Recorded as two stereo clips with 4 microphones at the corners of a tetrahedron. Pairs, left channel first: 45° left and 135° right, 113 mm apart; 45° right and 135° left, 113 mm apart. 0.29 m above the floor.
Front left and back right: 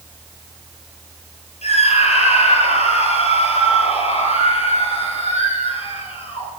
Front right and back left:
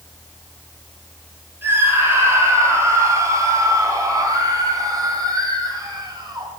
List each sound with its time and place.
1.6 s a scream: 65° left, 9.5 m; by 6.5 s 85° left, 10 m